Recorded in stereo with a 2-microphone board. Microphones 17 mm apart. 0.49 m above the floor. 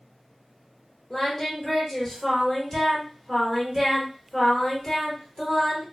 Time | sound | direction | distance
1.1 | singing | 10° left (ahead or behind) | 1.3 m